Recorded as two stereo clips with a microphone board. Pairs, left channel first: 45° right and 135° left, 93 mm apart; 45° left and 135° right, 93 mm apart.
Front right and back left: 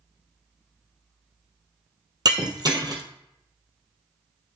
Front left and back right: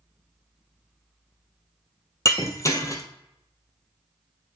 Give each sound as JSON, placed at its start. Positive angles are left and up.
{"t": 2.2, "sound": "breaking glass", "azimuth_deg": 100, "distance_m": 1.4}